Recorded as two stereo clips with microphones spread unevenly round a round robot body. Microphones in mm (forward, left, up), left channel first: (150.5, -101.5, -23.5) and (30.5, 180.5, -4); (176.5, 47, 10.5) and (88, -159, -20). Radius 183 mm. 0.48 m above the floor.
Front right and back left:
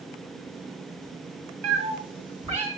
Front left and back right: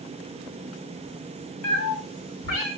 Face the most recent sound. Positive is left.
turn(degrees=40)